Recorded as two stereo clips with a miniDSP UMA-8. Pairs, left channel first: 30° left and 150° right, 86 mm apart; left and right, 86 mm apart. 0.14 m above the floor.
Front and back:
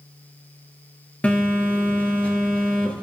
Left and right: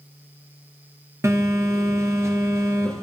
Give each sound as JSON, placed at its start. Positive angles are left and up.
{"t": 1.2, "sound": "a phone buzzing", "azimuth_deg": -40, "distance_m": 2.5}